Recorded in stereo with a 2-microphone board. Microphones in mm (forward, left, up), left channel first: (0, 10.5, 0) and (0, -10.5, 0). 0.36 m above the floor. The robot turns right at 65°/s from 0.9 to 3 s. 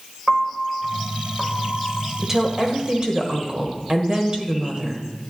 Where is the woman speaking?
155° right, 1.3 m; by 5.0 s 100° right, 1.3 m.